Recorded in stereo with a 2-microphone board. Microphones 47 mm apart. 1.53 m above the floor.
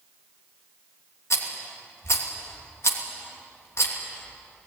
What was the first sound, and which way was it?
A rattle, 70° left (ahead or behind).